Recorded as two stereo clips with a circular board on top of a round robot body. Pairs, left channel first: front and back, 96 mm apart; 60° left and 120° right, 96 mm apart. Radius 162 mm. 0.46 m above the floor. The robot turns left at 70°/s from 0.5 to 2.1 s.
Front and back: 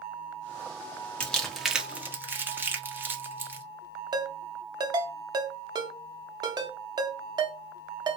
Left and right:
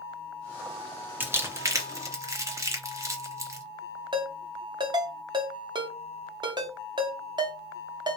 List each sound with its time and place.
1.2 s crumpling: 65° right, 1.2 m; by 3.6 s 130° right, 1.2 m
4.1 s a ringtone: 145° right, 1.0 m